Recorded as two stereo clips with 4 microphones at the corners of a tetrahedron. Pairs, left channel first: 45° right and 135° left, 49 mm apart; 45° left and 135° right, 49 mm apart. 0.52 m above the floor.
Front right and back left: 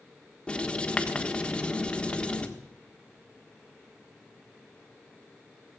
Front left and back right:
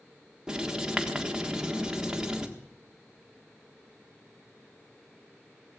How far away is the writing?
About 1.4 m.